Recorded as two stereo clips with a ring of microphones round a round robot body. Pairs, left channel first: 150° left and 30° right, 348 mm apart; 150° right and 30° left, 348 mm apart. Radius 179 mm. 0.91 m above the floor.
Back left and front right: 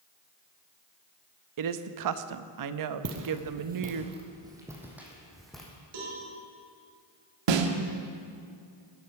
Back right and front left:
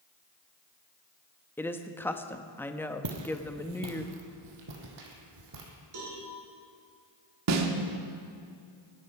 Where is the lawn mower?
I don't hear a lawn mower.